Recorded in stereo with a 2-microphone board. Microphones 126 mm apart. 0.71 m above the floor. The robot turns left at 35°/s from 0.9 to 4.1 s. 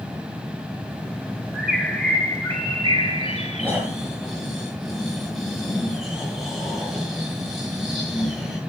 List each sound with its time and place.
1.5 s a bird: 170° right, 4 m; by 3.8 s 115° left, 4 m
3.6 s snoring: 15° right (ahead or behind), 6.5 m; by 8.6 s centre (ahead or behind), 6.5 m